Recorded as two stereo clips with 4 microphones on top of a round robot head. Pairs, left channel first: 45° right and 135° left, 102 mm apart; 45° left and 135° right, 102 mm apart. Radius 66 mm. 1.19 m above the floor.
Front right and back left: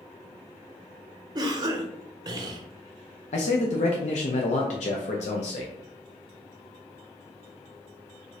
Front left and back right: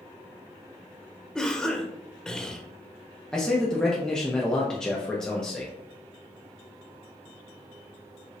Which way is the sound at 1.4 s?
125° left.